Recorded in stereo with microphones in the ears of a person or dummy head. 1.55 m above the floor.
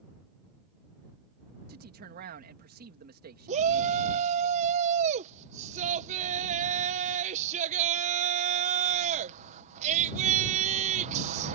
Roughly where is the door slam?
No door slam in this recording.